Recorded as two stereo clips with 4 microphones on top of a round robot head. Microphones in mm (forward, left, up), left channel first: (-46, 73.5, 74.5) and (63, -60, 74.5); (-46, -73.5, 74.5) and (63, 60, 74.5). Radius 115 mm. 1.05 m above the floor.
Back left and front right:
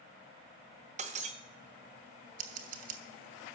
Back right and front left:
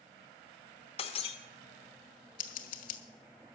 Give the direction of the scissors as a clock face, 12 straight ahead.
3 o'clock.